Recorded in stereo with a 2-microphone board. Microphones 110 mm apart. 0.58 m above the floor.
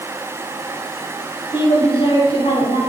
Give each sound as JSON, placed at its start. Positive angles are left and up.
{"t": 1.5, "sound": "a woman speaking", "side_deg": 60, "distance_m": 4.0}